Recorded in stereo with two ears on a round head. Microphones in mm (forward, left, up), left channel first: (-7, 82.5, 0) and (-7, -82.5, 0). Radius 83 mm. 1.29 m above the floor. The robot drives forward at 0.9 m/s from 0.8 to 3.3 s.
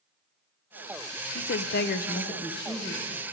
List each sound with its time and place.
1.4 s a woman speaking: 50° left (ahead or behind), 0.6 m; by 3.2 s 15° left (ahead or behind), 1.5 m